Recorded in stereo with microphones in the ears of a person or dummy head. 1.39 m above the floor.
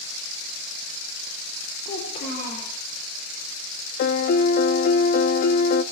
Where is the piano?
50° left (ahead or behind), 0.7 m.